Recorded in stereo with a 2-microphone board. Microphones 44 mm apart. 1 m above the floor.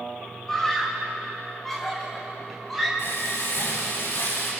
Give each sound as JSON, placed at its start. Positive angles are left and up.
{"t": 0.5, "sound": "a scream", "side_deg": 10, "distance_m": 6.0}
{"t": 3.0, "sound": "frying", "side_deg": 60, "distance_m": 7.5}